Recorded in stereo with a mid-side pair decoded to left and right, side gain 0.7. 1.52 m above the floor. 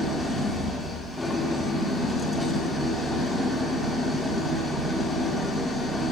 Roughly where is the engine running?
Ahead.